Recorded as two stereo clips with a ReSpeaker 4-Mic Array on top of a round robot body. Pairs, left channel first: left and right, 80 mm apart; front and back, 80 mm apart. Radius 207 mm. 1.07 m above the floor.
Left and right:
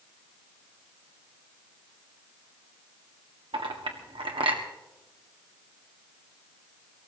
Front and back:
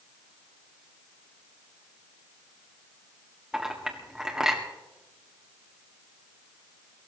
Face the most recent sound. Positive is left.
turn(degrees=-95)